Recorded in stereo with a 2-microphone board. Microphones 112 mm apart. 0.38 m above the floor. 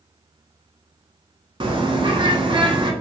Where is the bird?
45° right (ahead or behind), 0.7 m.